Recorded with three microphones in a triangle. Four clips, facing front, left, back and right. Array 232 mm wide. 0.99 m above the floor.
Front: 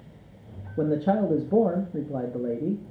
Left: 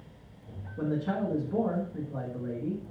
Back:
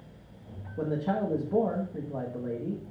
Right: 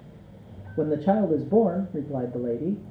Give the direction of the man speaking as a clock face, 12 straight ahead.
2 o'clock.